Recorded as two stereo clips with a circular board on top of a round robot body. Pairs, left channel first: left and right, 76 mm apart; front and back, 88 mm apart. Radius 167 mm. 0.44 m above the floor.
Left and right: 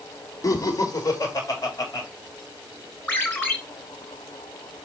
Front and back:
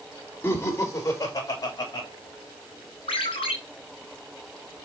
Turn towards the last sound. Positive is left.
turn(degrees=25)